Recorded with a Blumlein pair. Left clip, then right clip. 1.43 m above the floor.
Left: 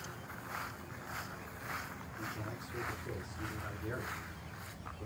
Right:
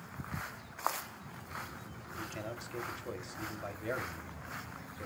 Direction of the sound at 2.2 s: 50° right.